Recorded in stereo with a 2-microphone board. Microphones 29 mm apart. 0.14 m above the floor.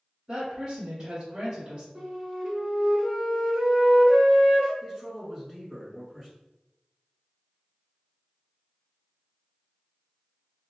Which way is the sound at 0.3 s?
30° right (ahead or behind).